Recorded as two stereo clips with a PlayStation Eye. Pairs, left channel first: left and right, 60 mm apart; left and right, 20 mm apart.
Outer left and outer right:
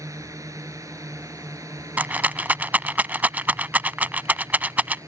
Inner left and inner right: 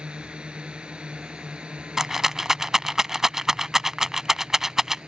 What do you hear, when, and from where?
0.0 s a drone: 65° right (ahead or behind)
2.0 s a rattle: 30° right (ahead or behind)